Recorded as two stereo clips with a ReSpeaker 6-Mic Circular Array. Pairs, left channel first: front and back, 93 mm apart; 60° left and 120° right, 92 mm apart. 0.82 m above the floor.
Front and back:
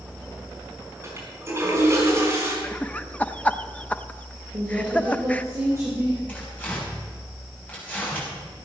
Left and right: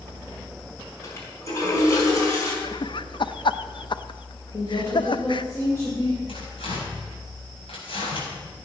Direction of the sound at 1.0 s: 115° left.